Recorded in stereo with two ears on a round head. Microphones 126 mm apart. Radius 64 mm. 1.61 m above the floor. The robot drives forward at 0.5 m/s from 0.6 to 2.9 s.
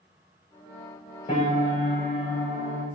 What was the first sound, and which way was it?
A piano, 45° left (ahead or behind).